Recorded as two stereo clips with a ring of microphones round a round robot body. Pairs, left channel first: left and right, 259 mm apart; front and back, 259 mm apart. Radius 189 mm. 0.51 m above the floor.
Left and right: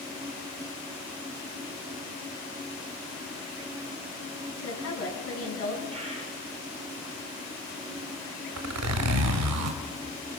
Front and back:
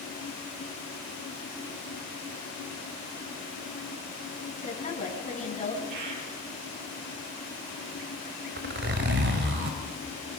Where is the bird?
165° right, 4 m.